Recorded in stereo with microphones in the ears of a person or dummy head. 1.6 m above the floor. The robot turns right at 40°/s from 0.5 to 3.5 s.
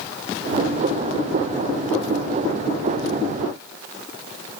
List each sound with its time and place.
Only background noise.